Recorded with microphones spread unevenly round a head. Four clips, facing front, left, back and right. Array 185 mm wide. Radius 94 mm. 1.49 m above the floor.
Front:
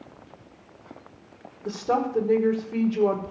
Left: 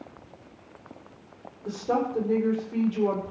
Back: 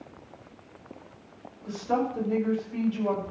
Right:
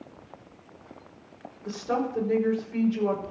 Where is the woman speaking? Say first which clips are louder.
Left 2 dB, front 2 dB; 20° left, 4.5 m.